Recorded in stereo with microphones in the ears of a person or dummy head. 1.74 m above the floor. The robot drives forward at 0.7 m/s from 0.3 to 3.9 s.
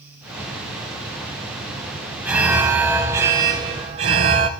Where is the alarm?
15° right (ahead or behind), 1.3 m; by 4.5 s 20° right (ahead or behind), 0.8 m.